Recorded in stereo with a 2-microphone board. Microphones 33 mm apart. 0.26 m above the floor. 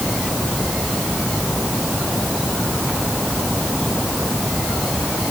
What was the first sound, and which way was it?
Only background noise.